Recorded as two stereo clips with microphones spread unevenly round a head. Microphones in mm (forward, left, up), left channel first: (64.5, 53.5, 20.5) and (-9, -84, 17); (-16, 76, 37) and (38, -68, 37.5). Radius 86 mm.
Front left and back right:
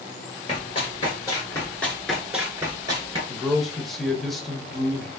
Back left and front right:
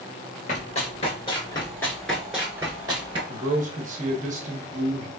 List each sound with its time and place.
0.5 s running footsteps: 90° left, 1.6 m; by 3.2 s 90° right, 1.4 m
3.3 s a man speaking: 25° right, 0.8 m